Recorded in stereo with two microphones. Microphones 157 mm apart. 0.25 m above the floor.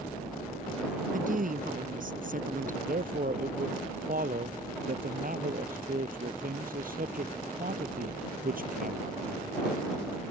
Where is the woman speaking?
65° right (ahead or behind).